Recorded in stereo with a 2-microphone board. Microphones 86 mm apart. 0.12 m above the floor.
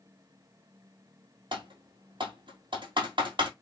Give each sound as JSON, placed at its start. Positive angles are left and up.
{"t": 1.5, "sound": "typing on a keyboard", "side_deg": -70, "distance_m": 1.9}